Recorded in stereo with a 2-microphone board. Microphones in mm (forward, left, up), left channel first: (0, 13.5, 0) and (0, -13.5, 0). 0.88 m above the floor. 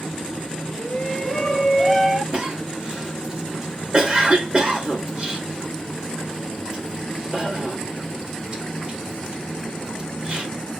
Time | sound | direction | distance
0.8 | a shout | 35° left (ahead or behind) | 1.0 m
2.3 | a cough | 30° right (ahead or behind) | 1.8 m